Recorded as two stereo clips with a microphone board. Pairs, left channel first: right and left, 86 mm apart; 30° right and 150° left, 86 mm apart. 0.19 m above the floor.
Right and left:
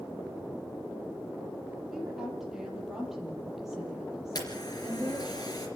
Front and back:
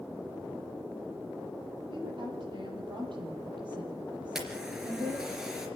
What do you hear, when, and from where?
1.9 s a woman speaking: 175° left, 6.5 m
4.3 s a camera shutter: 125° right, 3.5 m